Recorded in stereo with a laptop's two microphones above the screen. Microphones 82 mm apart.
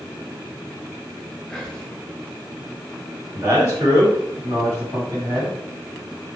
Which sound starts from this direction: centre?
Whispering, at 1.5 s.